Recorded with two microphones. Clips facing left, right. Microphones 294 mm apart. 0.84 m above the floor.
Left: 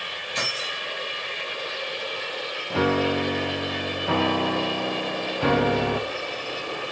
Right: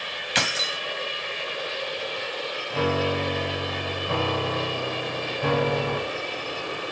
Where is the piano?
80° left, 0.9 m.